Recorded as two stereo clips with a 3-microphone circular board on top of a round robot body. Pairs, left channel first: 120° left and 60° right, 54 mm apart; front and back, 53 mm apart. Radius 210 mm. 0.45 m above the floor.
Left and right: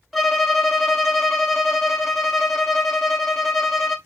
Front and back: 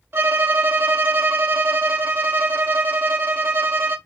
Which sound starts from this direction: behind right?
A violin, at 0.1 s.